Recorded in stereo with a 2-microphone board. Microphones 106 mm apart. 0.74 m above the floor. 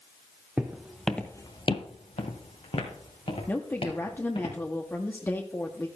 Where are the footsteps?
15° right (ahead or behind), 1.6 m; by 4.5 s 50° left (ahead or behind), 5 m.